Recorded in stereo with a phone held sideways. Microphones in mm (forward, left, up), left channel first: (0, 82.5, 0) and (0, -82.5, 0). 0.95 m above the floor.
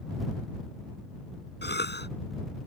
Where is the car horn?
No car horn in this recording.